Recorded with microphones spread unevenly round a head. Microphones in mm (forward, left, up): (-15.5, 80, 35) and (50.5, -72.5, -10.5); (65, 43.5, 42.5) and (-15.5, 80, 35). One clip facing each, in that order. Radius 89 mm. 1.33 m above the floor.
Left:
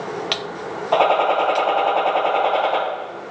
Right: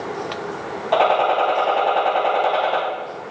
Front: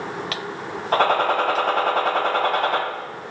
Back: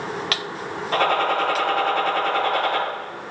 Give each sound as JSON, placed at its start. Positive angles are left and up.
{"t": 0.9, "sound": "a gunshot", "azimuth_deg": 15, "distance_m": 4.0}